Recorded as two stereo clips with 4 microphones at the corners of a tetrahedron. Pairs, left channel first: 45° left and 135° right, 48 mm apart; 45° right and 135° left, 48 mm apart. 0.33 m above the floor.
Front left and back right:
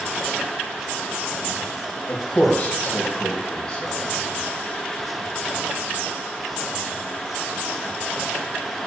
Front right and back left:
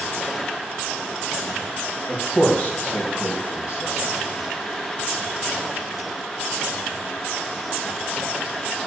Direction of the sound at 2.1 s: 20° left.